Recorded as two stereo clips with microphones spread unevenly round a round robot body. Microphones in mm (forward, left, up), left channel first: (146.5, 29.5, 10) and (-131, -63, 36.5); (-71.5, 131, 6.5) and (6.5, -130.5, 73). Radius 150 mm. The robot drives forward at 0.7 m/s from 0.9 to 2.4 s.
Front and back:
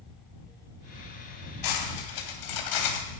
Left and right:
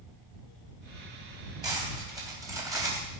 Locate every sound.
1.6 s cutlery clinking: 5° left, 3 m; by 3.1 s 10° left, 2.5 m